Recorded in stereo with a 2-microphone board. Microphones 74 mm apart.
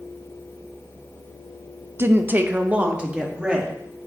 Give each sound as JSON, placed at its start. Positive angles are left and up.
{"t": 2.0, "sound": "a woman speaking", "side_deg": -30, "distance_m": 0.6}